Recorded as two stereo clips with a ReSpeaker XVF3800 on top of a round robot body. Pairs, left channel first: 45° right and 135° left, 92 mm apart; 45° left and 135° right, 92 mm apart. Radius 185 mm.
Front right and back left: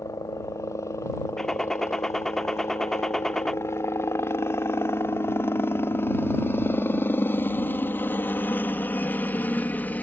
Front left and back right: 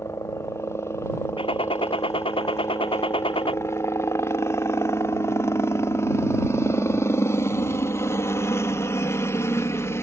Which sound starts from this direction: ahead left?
A gunshot, at 1.4 s.